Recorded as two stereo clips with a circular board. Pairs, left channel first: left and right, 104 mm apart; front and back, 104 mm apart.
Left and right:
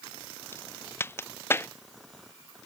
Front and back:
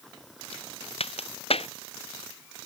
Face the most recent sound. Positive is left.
turn(degrees=25)